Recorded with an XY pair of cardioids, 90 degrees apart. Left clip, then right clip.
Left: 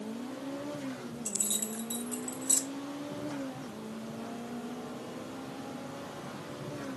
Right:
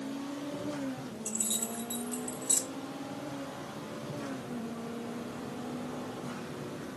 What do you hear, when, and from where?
1.2 s keys jangling: 25° left, 1.4 m